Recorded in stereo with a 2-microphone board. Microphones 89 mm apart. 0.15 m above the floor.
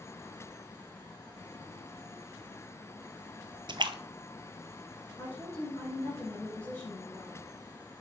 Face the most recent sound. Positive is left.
turn(degrees=25)  # may be behind; listen again after turning